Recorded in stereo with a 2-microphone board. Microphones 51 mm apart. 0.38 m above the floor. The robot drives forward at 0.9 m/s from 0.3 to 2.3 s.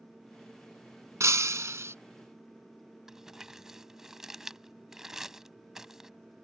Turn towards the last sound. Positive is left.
turn(degrees=-10)  # may be behind; listen again after turning